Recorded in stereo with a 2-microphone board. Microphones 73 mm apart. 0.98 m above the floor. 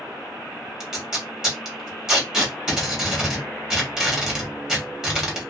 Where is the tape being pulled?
10° right (ahead or behind), 1.2 m.